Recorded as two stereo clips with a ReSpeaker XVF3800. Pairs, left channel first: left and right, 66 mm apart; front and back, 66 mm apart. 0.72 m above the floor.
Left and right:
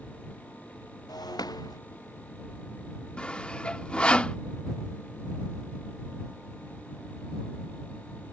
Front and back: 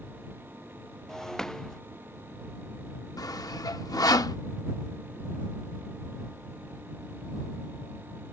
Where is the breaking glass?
80° left.